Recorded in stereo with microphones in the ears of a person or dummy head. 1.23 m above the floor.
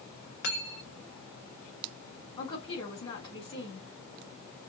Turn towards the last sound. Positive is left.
turn(degrees=25)  # may be behind; listen again after turning